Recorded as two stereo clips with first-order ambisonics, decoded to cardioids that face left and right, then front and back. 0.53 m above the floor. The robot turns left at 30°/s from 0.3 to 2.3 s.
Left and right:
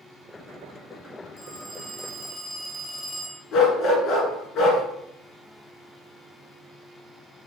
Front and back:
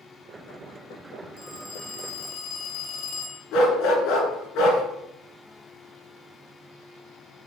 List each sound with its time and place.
1.4 s a phone ringing: 45° left, 3 m; by 3.4 s 15° left, 3 m
3.5 s a dog barking: 40° left, 2 m